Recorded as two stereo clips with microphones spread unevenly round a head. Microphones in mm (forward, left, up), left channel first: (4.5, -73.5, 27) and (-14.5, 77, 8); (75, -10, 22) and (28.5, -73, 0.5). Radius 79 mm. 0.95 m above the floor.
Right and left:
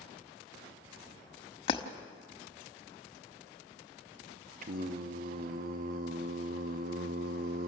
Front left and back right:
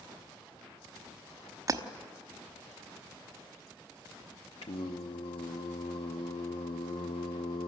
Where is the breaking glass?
100° right, 0.9 m.